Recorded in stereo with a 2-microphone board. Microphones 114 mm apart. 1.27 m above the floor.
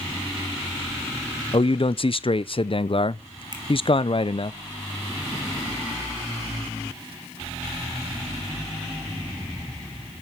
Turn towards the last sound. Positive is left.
turn(degrees=-40)  # may be behind; listen again after turning